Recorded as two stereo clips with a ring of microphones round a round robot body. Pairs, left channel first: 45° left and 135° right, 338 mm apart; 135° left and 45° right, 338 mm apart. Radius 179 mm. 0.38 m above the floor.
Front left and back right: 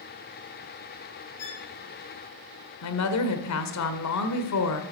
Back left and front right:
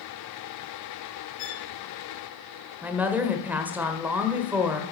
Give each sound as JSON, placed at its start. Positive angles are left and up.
{"t": 1.4, "sound": "a violin", "azimuth_deg": 95, "distance_m": 3.5}
{"t": 2.8, "sound": "a woman speaking", "azimuth_deg": 40, "distance_m": 1.6}